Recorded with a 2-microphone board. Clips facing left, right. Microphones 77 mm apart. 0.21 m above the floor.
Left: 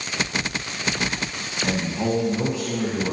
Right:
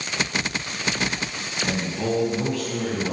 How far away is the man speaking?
About 1.5 m.